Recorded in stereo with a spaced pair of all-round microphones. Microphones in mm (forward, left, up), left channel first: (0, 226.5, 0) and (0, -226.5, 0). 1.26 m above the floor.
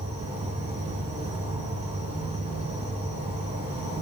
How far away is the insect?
About 3.5 m.